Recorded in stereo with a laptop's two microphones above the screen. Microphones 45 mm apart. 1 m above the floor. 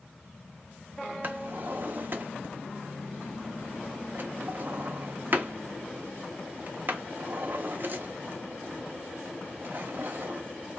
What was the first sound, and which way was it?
A drawer, 50° right (ahead or behind).